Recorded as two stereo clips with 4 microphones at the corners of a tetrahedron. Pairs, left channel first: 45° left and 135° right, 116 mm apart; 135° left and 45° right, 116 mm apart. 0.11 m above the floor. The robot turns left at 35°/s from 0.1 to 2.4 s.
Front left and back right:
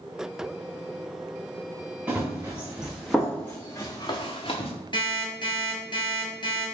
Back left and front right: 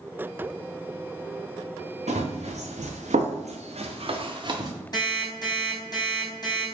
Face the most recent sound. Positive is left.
turn(degrees=85)